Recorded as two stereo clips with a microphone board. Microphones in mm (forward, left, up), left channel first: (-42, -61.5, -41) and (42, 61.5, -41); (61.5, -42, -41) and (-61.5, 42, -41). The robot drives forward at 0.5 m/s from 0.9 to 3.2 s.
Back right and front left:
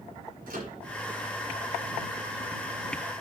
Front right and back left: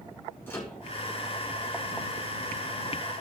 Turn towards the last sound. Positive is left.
turn(degrees=50)